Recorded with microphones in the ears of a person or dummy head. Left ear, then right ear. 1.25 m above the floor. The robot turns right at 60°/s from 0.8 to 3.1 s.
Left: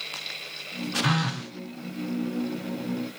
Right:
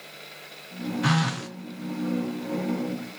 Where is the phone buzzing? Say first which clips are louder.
Right 5 dB; centre (ahead or behind), 0.5 m; by 1.5 s 25° right (ahead or behind), 0.5 m.